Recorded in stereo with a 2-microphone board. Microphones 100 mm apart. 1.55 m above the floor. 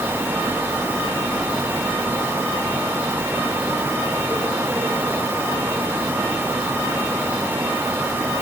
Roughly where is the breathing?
No breathing in this recording.